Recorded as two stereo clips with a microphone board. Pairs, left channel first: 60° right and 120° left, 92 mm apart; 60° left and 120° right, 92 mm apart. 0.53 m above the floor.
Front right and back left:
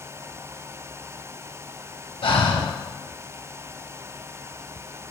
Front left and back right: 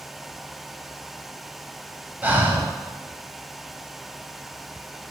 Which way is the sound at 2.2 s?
45° right.